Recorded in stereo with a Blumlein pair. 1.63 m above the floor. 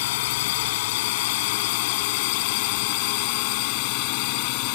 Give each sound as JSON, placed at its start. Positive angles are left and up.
{"t": 0.0, "sound": "a drone", "azimuth_deg": 50}